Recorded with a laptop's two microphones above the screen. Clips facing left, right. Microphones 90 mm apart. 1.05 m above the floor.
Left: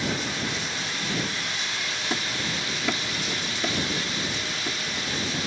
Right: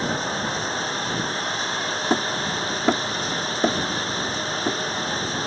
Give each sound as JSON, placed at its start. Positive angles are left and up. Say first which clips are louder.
{"t": 0.0, "sound": "running water", "louder": "right 4 dB", "side_deg": -35}
{"t": 2.1, "sound": "hammering", "louder": "right 7 dB", "side_deg": -40}